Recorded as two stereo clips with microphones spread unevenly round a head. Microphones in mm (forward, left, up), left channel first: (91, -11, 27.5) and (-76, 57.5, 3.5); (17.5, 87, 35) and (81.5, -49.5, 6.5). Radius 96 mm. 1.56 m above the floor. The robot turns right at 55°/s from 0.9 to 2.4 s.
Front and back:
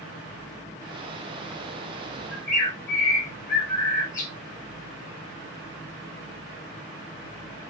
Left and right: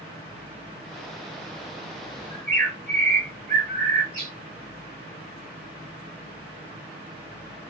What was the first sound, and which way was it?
A bird, 45° right.